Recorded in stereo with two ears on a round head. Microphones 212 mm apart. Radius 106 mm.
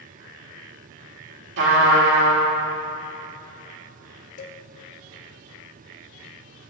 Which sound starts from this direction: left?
A cowbell, at 4.4 s.